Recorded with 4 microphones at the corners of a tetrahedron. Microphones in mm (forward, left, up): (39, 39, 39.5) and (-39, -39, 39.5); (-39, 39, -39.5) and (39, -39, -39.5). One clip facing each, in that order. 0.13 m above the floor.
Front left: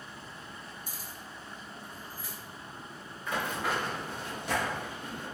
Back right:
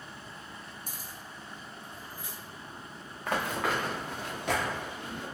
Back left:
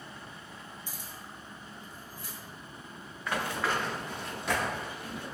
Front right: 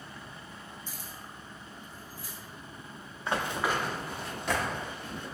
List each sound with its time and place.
0.9 s keys jangling: 150° right, 1.2 m; by 2.4 s 150° left, 1.5 m
3.3 s running footsteps: 105° right, 0.8 m; by 5.2 s 145° right, 1.8 m